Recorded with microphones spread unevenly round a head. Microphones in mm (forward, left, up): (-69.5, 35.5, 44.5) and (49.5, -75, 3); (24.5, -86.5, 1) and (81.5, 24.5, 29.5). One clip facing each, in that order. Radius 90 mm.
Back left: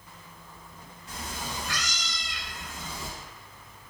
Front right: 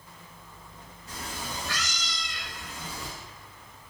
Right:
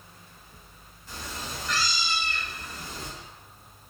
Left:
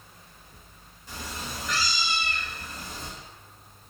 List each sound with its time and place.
1.1 s a cat meowing: 15° left, 1.1 m; by 3.1 s 165° left, 0.9 m